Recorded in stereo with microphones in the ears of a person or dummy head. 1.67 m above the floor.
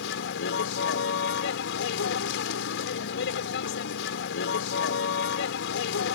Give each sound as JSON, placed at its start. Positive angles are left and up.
{"t": 0.0, "sound": "a vehicle", "side_deg": 75}